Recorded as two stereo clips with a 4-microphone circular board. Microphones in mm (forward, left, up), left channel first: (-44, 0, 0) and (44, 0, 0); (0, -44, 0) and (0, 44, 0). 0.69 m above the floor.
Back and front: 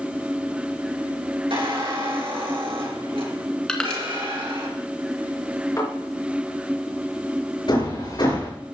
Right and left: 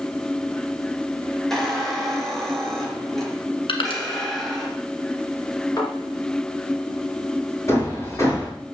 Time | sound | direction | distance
1.5 | a squeak | 5° right | 3.5 m
3.7 | crushing | 95° right | 1.9 m
5.8 | a thud | 125° right | 4.5 m
7.7 | hammering | 145° right | 6.5 m